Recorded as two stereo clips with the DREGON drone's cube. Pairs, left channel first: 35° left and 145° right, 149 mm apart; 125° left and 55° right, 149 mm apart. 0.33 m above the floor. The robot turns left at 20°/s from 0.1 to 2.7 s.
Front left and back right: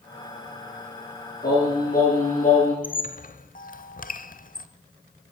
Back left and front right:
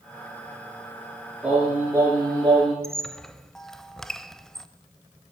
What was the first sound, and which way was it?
Singing, 25° left.